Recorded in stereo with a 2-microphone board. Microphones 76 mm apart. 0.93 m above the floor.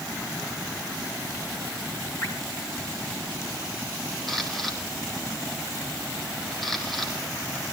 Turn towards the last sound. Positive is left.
turn(degrees=0)  # may be behind; listen again after turning